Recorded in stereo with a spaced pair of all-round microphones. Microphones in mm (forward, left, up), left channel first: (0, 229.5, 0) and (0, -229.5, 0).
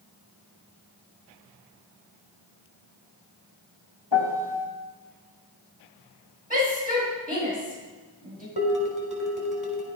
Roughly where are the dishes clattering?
Left.